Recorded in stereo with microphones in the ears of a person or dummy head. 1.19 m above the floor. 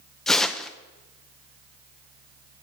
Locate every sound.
0.3 s tearing paper: centre (ahead or behind), 0.5 m